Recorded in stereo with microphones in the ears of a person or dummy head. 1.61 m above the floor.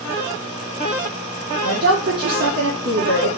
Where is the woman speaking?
60° right (ahead or behind), 1.6 m.